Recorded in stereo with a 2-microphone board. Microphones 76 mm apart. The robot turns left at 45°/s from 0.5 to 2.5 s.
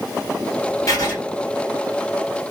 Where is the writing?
45° left (ahead or behind), 1.8 m; by 1.1 s 35° left (ahead or behind), 1.8 m.